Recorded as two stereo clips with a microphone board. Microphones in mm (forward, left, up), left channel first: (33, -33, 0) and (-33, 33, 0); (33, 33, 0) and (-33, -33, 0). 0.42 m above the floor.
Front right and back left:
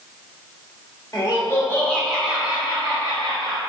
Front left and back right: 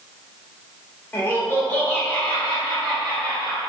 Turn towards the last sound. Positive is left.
turn(degrees=145)